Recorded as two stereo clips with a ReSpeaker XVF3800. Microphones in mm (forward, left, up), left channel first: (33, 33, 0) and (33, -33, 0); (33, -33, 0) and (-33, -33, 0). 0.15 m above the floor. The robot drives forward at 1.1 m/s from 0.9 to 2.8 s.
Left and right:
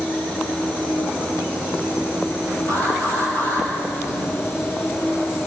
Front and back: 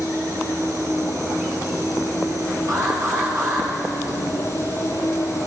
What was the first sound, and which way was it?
An insect, 30° left.